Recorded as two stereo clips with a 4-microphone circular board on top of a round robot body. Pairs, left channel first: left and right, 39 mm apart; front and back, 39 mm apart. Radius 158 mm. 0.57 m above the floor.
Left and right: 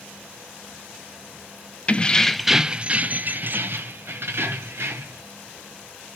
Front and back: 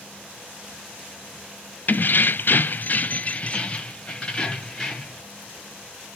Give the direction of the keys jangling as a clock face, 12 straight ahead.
11 o'clock.